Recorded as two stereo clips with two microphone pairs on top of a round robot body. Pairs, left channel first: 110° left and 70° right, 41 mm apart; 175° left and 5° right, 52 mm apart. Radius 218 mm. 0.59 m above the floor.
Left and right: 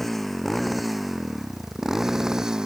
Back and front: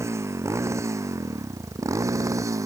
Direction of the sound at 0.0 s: 25° left.